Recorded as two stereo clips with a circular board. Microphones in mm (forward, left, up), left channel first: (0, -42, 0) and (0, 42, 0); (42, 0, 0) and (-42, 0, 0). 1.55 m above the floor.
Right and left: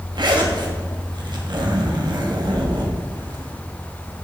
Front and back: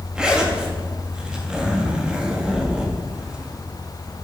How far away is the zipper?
About 1.5 m.